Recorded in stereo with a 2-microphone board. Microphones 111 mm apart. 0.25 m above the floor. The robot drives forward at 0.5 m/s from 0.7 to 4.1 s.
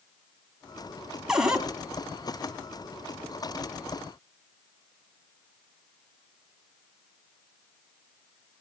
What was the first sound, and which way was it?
A cupboard door, 5° right (ahead or behind).